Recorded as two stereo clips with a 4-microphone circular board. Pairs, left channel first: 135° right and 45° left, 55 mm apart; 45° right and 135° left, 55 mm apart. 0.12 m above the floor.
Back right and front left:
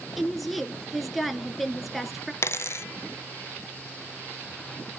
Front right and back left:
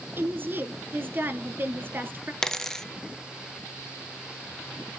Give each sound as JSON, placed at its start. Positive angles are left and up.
{"t": 0.2, "sound": "a woman speaking", "azimuth_deg": 135, "distance_m": 1.3}
{"t": 2.4, "sound": "a dropped coin", "azimuth_deg": -120, "distance_m": 0.6}